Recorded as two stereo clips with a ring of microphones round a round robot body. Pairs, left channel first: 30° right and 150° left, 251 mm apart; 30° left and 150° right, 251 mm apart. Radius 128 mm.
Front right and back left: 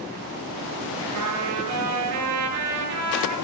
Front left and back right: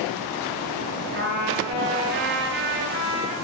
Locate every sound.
1.1 s a trumpet: 165° left, 7.5 m